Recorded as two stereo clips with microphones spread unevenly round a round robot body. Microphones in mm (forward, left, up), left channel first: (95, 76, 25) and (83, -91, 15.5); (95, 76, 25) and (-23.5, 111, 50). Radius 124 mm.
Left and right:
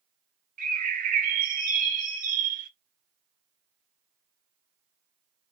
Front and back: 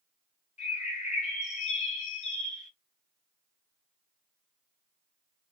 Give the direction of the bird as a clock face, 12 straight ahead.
2 o'clock.